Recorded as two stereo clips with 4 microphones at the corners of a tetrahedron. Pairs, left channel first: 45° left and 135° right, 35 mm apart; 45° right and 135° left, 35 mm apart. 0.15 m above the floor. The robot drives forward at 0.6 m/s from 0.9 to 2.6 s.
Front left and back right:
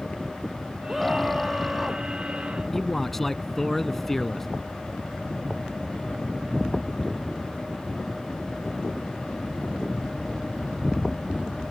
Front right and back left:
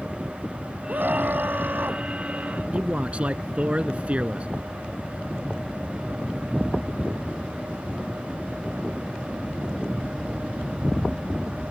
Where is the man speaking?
120° left.